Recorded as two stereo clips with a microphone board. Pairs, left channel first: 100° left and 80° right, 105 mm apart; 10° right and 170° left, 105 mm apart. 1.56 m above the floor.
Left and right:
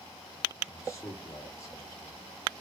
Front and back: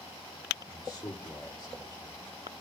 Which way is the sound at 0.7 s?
40° left.